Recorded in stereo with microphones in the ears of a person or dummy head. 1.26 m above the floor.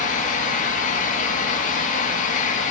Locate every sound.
0.0 s a fan: 40° left (ahead or behind), 1.4 m